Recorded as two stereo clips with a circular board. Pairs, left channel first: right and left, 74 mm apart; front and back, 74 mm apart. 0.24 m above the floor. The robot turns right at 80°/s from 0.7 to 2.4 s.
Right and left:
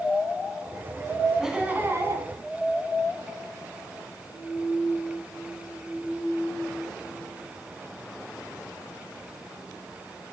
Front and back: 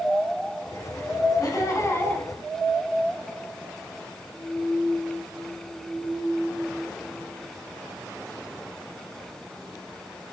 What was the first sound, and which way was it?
Laughter, 5° left.